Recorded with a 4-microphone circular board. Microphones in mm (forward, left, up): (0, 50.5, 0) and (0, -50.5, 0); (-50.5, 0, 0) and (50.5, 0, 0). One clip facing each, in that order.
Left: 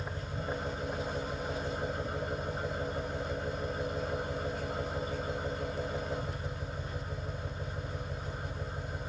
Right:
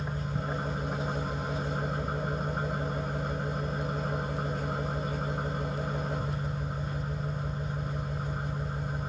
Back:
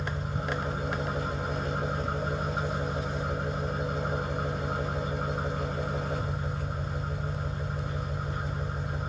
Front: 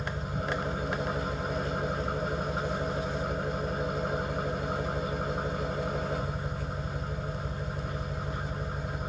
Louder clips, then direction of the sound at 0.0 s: Right 4 dB, even; 80° right.